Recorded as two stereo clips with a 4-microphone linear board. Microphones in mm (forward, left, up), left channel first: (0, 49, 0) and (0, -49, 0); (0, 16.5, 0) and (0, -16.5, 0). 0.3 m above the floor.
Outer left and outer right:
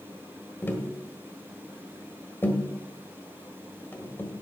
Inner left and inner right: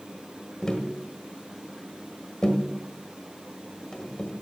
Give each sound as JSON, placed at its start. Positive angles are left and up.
{"t": 0.6, "sound": "tapping", "side_deg": 20, "distance_m": 1.6}